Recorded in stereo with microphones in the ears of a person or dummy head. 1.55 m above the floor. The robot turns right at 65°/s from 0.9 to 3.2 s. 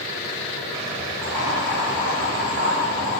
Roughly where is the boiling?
Centre.